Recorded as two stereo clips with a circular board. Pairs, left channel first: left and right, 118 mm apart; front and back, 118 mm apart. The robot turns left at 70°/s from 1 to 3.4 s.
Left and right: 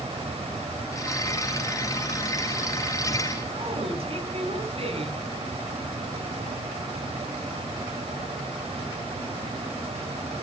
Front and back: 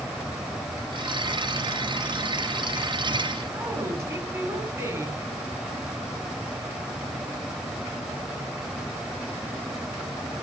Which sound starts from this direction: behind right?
A woman speaking, at 3.5 s.